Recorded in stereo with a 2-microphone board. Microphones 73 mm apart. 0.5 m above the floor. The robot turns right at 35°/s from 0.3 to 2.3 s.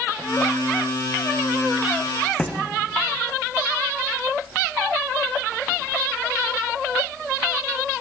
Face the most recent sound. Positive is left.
turn(degrees=15)  # may be behind; listen again after turning